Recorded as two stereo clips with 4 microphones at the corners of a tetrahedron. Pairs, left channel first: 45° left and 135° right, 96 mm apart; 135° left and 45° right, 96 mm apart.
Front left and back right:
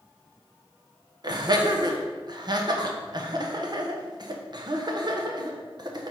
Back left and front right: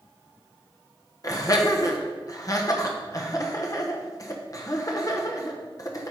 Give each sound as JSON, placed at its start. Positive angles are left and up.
{"t": 1.2, "sound": "laughter", "azimuth_deg": -175, "distance_m": 1.2}